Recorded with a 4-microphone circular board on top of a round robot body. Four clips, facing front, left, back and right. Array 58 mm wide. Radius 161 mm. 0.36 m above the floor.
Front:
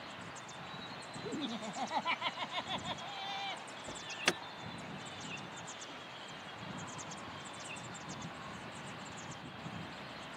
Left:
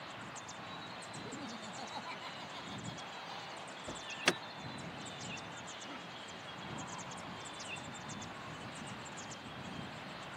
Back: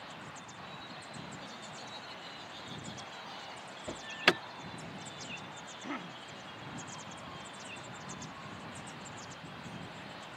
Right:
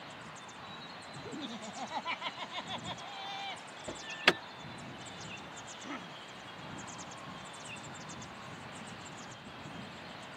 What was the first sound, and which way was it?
Laughter, 20° right.